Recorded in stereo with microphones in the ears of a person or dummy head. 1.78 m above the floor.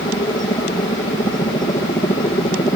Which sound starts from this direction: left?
A helicopter, at 0.0 s.